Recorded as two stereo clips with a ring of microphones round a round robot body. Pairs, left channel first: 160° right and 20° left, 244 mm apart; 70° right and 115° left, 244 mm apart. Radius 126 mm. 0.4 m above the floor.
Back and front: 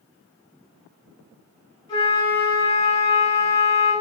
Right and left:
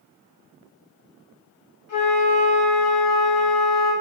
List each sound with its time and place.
1.9 s a flute: 85° right, 1.9 m